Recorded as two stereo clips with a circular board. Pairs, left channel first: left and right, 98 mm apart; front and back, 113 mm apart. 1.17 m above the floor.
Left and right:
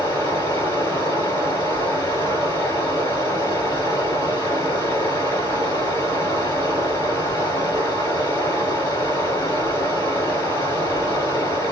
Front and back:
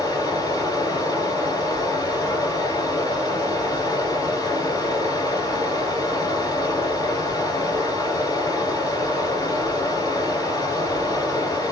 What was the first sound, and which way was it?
Running water, 40° left.